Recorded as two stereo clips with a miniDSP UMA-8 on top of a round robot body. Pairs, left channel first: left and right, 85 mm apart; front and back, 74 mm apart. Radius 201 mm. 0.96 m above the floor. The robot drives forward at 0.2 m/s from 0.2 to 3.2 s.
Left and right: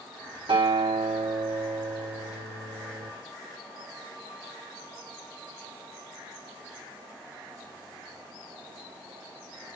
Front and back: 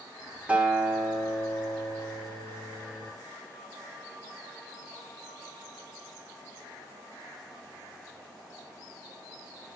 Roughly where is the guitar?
Right.